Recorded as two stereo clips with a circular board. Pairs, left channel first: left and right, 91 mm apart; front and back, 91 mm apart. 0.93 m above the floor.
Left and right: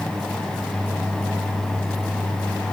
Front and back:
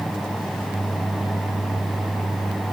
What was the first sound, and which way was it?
Only background noise.